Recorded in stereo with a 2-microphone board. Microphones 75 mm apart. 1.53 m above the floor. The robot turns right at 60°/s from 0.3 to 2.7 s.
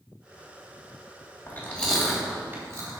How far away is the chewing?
About 3 m.